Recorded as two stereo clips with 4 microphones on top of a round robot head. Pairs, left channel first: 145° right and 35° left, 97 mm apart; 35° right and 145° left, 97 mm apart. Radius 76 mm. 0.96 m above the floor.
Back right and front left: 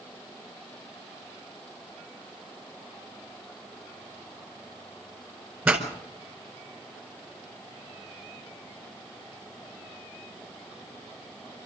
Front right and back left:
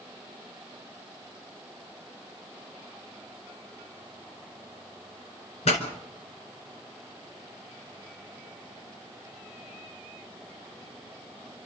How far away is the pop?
About 4.5 m.